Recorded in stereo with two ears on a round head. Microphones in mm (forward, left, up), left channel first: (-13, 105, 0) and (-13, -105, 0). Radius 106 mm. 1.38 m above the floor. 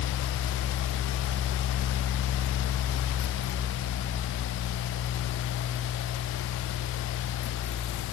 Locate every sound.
Only background noise.